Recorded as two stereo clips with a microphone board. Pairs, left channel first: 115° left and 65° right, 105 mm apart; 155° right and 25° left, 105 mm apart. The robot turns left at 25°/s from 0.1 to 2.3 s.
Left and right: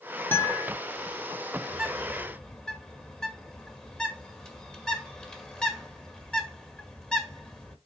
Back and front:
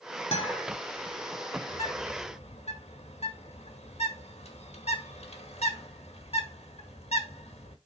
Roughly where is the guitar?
Behind.